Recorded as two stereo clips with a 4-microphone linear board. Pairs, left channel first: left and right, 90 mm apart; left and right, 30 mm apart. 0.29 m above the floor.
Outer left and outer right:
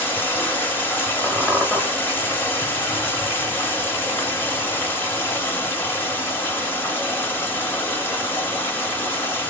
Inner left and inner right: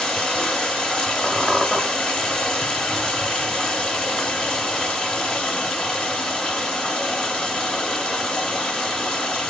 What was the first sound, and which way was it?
Running water, 25° left (ahead or behind).